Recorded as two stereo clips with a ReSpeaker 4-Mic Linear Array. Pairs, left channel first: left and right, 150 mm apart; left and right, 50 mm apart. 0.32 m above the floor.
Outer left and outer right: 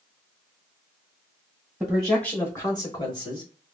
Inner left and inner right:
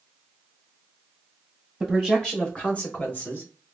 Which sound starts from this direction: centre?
A man speaking, at 1.8 s.